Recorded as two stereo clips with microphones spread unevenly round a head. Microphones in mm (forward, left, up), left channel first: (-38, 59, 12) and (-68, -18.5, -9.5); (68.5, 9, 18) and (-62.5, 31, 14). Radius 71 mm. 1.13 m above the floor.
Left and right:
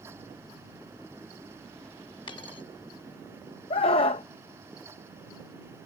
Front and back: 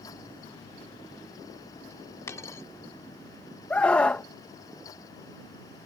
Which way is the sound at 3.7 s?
70° left.